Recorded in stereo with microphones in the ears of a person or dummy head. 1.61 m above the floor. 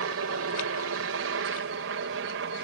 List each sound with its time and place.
0.0 s a helicopter: 60° right (ahead or behind); by 2.6 s 55° right (ahead or behind)